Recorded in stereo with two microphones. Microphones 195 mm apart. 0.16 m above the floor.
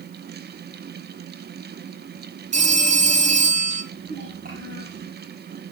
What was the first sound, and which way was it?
A phone ringing, 40° right (ahead or behind).